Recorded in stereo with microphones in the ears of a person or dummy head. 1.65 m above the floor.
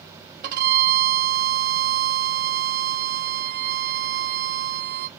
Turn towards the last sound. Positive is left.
turn(degrees=-50)  # may be behind; listen again after turning